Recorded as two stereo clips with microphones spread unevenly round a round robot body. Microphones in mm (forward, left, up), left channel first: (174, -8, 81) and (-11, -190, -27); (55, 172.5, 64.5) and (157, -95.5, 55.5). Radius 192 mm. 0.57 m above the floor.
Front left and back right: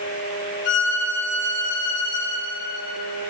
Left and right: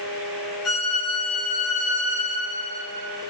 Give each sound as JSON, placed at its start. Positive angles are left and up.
{"t": 0.7, "sound": "a violin", "azimuth_deg": 85, "distance_m": 1.5}